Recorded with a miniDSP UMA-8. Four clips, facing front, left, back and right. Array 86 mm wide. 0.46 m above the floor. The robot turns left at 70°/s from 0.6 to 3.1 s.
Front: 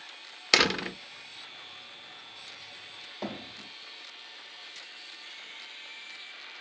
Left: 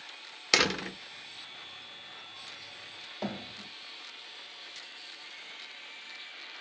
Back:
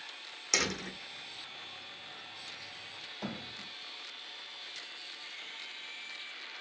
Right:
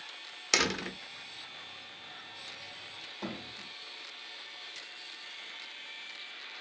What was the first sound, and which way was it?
A door slam, 15° left.